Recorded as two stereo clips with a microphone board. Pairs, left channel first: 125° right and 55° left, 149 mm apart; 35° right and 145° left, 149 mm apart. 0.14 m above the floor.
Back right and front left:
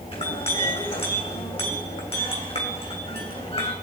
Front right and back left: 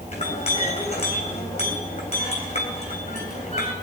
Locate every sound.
0.1 s a clink: 75° right, 3.5 m